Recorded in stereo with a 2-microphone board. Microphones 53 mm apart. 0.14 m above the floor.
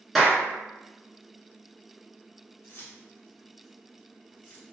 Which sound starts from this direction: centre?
A clap, at 0.1 s.